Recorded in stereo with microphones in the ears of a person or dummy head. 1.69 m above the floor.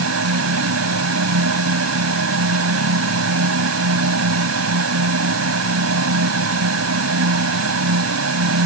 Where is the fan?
85° right.